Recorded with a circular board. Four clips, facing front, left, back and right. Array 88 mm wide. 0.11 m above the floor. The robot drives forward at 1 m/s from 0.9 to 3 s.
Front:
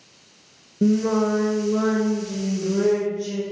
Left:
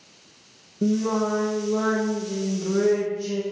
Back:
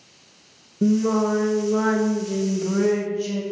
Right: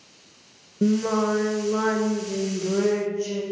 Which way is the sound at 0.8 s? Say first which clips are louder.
Right 1 dB, even; 55° right.